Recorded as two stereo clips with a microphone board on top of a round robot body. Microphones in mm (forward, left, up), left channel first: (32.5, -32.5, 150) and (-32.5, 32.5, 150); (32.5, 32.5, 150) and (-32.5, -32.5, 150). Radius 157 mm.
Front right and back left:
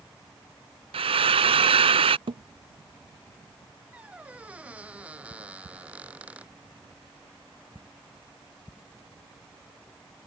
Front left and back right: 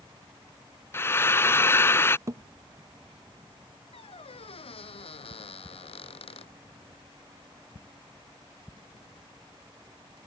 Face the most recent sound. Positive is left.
turn(degrees=60)